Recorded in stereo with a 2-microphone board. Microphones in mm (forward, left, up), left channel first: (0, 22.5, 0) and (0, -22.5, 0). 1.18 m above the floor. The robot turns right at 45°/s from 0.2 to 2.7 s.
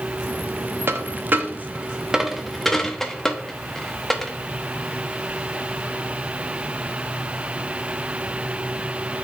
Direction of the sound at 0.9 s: 55° right (ahead or behind).